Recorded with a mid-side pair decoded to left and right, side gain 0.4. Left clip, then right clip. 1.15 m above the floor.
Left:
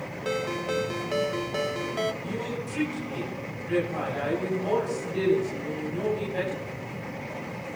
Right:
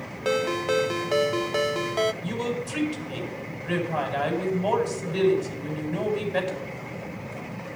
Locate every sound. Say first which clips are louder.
0.2 s a ringtone: right 5 dB; 40° right, 0.5 m
2.2 s a woman speaking: right 3 dB; 65° right, 7.5 m